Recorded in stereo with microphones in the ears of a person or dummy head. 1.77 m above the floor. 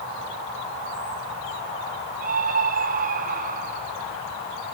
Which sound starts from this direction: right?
A scream, at 2.2 s.